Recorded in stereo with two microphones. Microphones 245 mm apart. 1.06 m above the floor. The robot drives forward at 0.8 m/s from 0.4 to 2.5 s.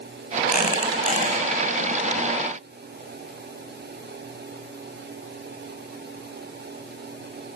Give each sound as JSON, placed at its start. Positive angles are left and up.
{"t": 0.5, "sound": "a squeak", "side_deg": 40, "distance_m": 1.3}